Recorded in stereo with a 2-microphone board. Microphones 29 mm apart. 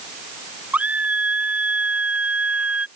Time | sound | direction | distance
0.7 | a scream | 60° right (ahead or behind) | ?